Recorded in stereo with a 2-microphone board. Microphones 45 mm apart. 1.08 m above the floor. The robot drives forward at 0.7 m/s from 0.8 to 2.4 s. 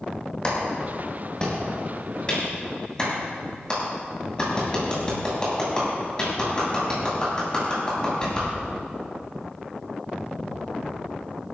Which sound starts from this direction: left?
A clap, at 0.4 s.